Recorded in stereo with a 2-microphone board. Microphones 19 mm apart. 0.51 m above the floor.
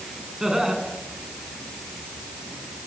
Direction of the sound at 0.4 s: 35° right (ahead or behind).